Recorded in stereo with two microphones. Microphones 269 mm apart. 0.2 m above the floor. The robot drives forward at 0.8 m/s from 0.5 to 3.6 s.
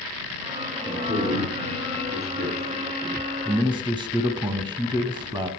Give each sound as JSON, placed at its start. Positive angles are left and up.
{"t": 0.8, "sound": "a man speaking", "side_deg": -30, "distance_m": 6.5}
{"t": 3.5, "sound": "a man speaking", "side_deg": -20, "distance_m": 1.0}